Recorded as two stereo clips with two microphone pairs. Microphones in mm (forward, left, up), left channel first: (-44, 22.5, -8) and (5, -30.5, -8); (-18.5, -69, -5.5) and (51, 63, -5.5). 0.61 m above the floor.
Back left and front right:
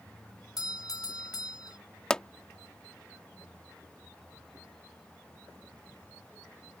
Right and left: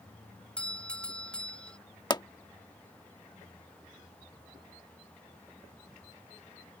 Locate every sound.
0.6 s a doorbell: 160° left
2.1 s a pop: 155° right